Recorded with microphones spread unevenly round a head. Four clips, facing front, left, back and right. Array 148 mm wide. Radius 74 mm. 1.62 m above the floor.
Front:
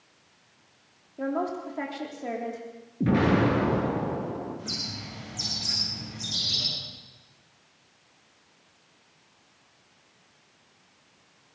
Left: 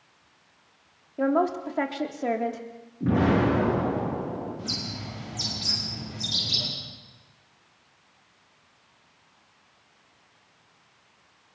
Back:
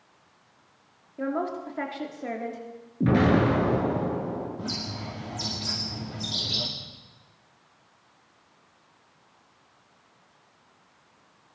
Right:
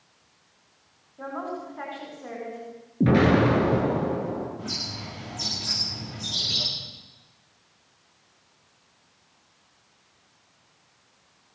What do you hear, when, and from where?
1.2 s a woman speaking: 90° left, 3.5 m
3.0 s an explosion: 95° right, 9 m
4.6 s a bird: 170° right, 5 m